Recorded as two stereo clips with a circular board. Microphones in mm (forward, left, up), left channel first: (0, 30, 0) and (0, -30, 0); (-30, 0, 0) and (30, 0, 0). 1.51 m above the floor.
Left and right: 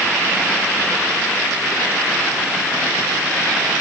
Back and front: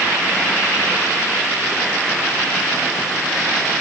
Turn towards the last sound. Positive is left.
No sound to turn to.